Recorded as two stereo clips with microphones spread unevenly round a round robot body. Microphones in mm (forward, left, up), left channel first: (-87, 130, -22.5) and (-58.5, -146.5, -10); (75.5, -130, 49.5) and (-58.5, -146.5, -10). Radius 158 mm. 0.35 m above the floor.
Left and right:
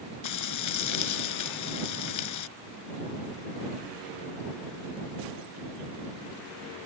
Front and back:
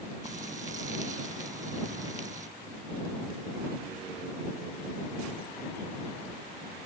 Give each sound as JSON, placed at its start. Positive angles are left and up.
{"t": 0.2, "sound": "frying", "azimuth_deg": 115}